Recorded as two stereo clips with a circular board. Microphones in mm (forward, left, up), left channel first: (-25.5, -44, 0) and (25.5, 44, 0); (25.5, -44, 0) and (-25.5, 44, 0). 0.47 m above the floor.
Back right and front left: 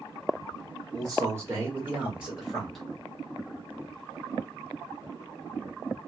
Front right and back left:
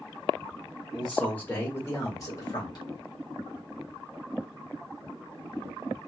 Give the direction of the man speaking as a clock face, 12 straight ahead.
11 o'clock.